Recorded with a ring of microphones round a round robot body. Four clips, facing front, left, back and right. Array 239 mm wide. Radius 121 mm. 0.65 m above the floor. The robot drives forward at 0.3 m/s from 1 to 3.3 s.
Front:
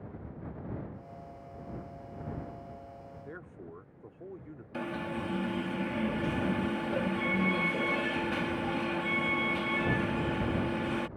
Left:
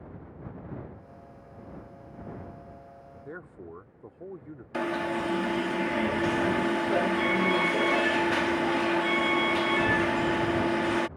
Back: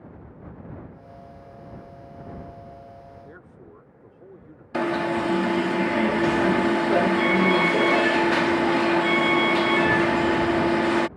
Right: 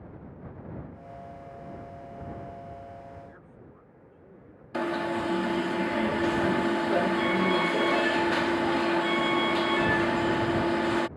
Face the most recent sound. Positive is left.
turn(degrees=-175)